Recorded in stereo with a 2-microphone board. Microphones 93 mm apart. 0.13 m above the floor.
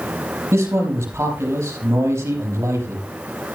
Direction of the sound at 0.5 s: 30° right (ahead or behind).